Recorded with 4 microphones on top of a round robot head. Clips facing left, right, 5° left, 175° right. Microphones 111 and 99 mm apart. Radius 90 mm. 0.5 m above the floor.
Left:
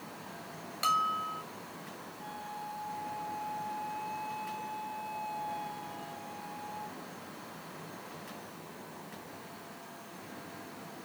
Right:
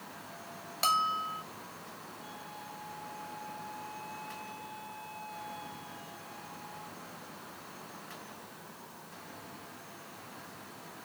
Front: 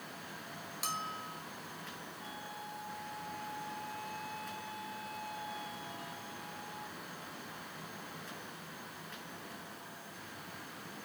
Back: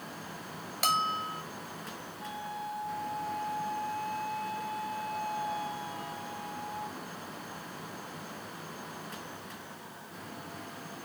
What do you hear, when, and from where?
0.8 s a bell: 150° right
2.2 s a flute: 150° left